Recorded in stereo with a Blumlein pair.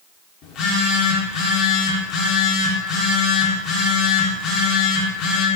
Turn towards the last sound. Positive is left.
turn(degrees=35)